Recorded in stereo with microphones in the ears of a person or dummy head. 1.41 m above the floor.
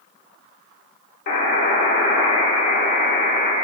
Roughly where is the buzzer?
Left.